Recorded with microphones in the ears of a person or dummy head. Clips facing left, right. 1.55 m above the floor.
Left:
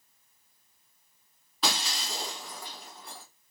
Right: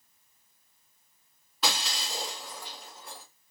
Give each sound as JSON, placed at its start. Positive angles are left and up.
{"t": 1.6, "sound": "breaking glass", "side_deg": 0, "distance_m": 1.6}